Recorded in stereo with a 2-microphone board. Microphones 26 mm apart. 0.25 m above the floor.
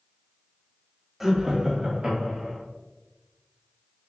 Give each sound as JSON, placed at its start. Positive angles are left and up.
{"t": 1.2, "sound": "laughter", "side_deg": -10, "distance_m": 1.0}